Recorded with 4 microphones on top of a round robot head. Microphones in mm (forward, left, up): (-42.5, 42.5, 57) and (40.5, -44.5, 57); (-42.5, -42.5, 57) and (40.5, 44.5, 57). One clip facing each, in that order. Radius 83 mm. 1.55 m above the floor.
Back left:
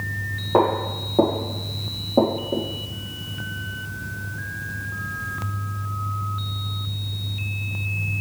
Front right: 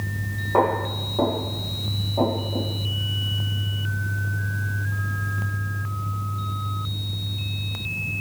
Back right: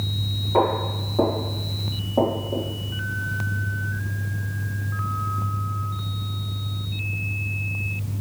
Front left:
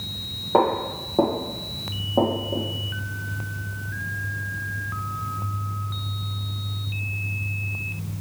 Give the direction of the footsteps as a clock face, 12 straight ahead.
9 o'clock.